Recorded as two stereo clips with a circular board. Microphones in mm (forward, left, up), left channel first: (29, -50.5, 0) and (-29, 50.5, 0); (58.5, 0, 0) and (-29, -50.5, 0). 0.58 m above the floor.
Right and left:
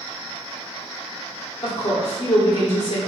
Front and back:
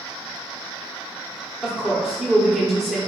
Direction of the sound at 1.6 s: 60° right.